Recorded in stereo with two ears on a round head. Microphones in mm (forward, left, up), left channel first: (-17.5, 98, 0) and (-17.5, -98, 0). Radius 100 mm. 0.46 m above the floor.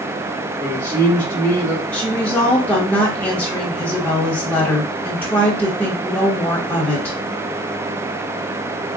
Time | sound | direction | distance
0.6 | a man speaking | 20° right (ahead or behind) | 1.4 m
1.9 | a woman speaking | 10° left (ahead or behind) | 1.0 m